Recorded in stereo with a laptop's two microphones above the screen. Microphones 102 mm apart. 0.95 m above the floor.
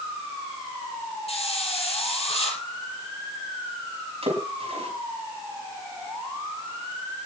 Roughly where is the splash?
Right.